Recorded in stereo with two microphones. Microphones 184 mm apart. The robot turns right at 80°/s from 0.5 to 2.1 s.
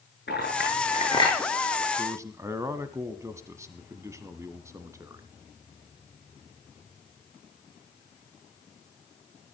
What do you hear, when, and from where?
0.3 s a clink: 80° left, 9 m; by 1.4 s 10° left (ahead or behind), 9 m
2.0 s a man speaking: 20° right (ahead or behind), 1.0 m; by 5.3 s 15° right (ahead or behind), 1.0 m